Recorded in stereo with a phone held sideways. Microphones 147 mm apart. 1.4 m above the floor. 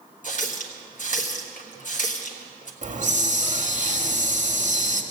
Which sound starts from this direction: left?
A running tap, at 0.2 s.